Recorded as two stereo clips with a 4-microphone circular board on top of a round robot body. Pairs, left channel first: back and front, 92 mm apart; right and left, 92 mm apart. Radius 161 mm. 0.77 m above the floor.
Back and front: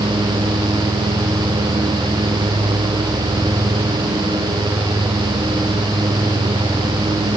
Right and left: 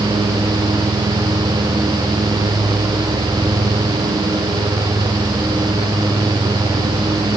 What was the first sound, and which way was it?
Only background noise.